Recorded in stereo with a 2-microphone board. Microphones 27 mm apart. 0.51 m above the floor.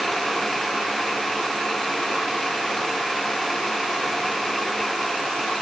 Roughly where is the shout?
I don't hear a shout.